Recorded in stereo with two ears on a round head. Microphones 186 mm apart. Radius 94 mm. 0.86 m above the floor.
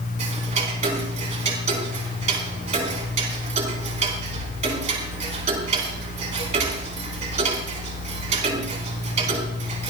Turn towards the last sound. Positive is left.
turn(degrees=-35)  # may be behind; listen again after turning